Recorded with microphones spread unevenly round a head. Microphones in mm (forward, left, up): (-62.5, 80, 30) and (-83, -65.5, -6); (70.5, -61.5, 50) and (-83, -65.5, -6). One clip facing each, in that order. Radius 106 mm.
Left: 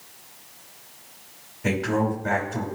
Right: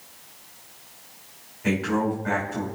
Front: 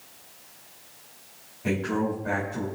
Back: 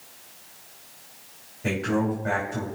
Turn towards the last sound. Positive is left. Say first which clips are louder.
# even, back 1 dB
turn(degrees=130)